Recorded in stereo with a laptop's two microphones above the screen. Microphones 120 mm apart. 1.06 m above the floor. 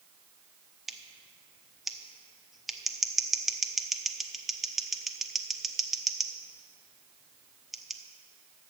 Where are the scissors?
Centre (ahead or behind), 0.5 m.